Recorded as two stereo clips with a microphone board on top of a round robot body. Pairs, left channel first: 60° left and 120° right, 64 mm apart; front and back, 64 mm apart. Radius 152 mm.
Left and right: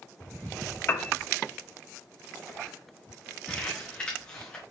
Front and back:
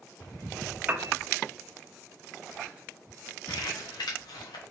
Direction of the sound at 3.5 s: 15° right.